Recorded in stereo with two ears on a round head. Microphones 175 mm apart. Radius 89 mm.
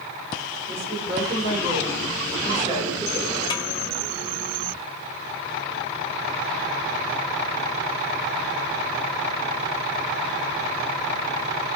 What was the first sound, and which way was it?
A woman speaking, 35° right (ahead or behind).